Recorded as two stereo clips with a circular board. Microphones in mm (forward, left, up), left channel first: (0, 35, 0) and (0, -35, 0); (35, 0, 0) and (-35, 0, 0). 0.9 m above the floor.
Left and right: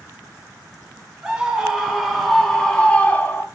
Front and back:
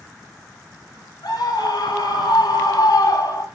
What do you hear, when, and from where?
1.2 s a scream: 10° right, 4 m; by 3.5 s 30° left, 2.5 m